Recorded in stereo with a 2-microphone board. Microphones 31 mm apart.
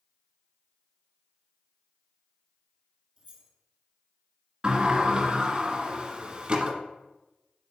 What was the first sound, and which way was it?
Keys jangling, 40° right (ahead or behind).